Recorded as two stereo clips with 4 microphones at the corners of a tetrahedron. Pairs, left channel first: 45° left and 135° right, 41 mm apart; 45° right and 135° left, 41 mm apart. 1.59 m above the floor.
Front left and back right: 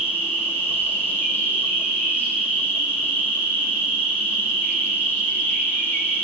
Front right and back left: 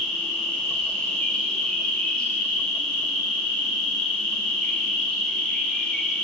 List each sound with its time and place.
0.0 s an insect: 25° left, 10 m